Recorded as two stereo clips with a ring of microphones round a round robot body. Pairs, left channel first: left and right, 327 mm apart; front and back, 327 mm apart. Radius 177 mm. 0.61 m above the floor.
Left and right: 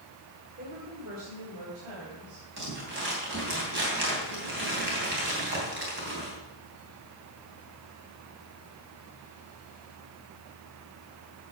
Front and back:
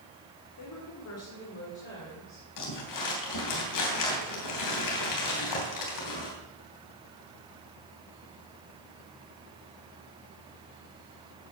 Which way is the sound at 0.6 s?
25° right.